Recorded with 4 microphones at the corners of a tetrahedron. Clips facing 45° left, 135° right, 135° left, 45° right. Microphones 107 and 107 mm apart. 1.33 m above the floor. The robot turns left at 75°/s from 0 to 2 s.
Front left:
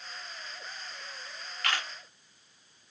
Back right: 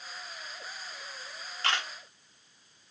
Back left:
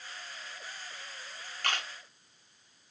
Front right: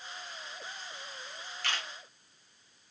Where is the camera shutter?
170° left, 1.0 m; by 1.9 s 150° left, 1.0 m.